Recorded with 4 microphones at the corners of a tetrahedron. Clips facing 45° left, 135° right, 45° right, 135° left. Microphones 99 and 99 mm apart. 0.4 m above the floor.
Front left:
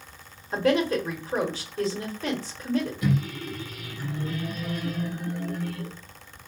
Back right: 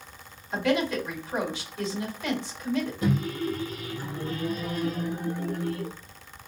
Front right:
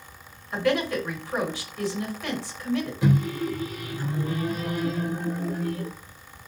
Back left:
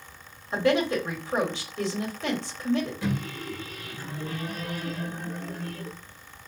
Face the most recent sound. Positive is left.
turn(degrees=-100)